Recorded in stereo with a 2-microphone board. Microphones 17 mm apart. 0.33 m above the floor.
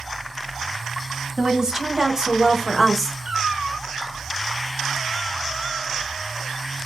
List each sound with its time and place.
1.4 s a woman speaking: 55° right (ahead or behind), 1.6 m; by 3.1 s 5° right (ahead or behind), 1.0 m
3.2 s a cat meowing: 35° right (ahead or behind), 2.5 m